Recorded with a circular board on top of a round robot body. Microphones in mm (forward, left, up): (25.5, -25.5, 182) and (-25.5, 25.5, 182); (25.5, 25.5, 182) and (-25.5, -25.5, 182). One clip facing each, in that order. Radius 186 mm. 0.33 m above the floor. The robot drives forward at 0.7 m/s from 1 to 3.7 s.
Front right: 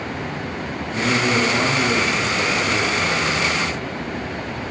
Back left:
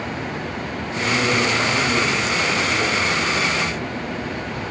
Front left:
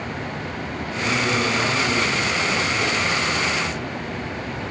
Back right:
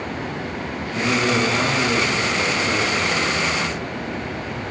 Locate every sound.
0.9 s a man speaking: 90° right, 9 m; by 3.7 s 100° right, 9.5 m